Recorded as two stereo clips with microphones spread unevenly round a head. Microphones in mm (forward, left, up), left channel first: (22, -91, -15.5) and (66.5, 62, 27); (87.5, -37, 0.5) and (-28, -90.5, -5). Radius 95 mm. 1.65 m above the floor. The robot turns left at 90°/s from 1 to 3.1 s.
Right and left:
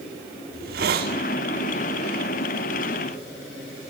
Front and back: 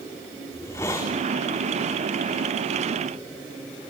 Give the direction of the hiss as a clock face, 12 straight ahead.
9 o'clock.